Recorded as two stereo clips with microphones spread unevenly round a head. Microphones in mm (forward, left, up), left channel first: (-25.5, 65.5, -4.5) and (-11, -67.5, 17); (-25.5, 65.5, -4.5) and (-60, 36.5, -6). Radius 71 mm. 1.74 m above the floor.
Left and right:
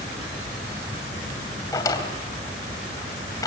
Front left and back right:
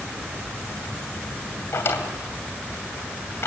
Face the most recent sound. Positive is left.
turn(degrees=25)